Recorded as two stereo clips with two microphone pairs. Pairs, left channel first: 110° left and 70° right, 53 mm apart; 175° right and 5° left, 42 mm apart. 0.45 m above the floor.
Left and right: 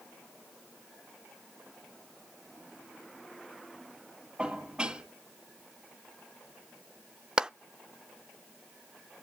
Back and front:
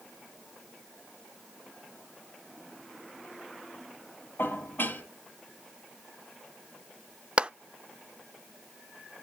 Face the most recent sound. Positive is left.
turn(degrees=-15)